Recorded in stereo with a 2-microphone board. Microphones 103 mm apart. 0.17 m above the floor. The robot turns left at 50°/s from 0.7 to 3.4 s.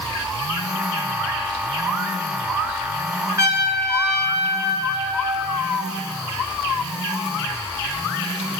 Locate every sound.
3.4 s a trumpet: 25° right (ahead or behind), 2.5 m; by 5.7 s 30° right (ahead or behind), 2.5 m